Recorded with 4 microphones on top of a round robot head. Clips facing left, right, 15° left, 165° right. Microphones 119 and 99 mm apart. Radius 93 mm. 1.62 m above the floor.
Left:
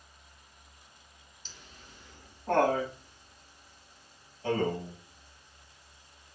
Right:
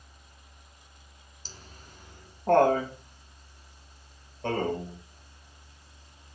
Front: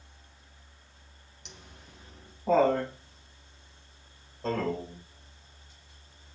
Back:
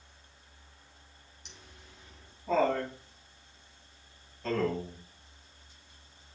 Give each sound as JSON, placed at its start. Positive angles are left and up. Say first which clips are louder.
{"t": 1.4, "sound": "laughter", "louder": "right 4 dB, front 4 dB", "azimuth_deg": -30, "distance_m": 1.2}